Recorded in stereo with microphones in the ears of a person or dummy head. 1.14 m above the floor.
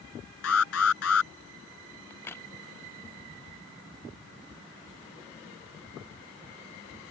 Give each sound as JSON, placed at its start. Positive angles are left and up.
{"t": 0.4, "sound": "an alarm", "side_deg": 85}
{"t": 2.1, "sound": "a crack", "side_deg": 10}